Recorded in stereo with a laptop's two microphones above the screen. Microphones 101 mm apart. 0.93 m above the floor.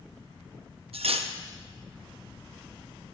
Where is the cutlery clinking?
75° right (ahead or behind), 0.6 m.